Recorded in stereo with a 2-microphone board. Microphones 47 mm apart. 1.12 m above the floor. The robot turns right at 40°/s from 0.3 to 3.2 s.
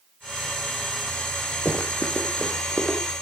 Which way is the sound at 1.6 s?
45° left (ahead or behind).